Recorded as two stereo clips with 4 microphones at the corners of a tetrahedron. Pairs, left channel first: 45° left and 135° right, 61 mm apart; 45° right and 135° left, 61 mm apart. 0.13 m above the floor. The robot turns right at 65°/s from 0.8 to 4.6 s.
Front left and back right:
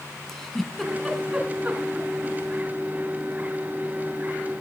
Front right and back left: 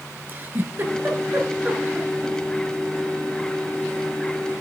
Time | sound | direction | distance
0.3 | a giggle | 125° left | 1.2 m